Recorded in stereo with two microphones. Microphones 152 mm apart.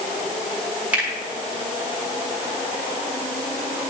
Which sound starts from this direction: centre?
A finger snap, at 0.9 s.